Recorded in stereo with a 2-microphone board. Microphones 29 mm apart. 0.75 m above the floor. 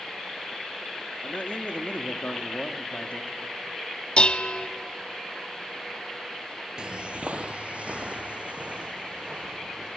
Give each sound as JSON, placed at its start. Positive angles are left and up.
{"t": 1.2, "sound": "a man speaking", "side_deg": 55, "distance_m": 1.4}
{"t": 4.2, "sound": "dishes clattering", "side_deg": 40, "distance_m": 0.8}
{"t": 6.8, "sound": "footsteps", "side_deg": -30, "distance_m": 0.8}